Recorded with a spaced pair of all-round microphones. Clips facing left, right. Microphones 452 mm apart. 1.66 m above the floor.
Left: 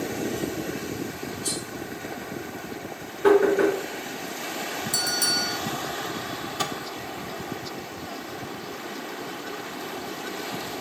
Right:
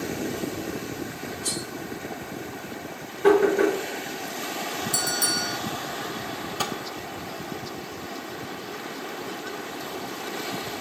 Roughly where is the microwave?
Left.